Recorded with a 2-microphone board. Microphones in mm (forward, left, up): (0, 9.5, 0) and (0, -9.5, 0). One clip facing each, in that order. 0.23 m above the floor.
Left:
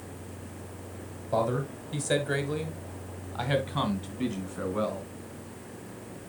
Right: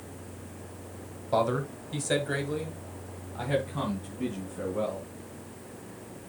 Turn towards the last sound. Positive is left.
turn(degrees=60)  # may be behind; listen again after turning